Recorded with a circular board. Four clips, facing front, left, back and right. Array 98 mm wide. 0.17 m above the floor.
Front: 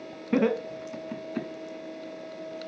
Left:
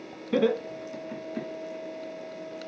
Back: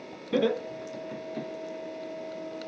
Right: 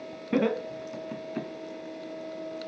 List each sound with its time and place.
0.3 s laughter: 35° right, 1.5 m; by 1.5 s 25° right, 1.9 m